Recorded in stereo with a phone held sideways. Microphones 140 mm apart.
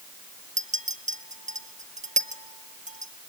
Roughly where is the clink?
Right.